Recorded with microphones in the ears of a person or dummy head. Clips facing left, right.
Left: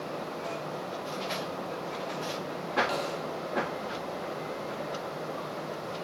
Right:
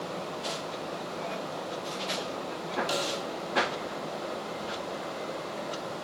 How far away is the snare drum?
About 1.1 m.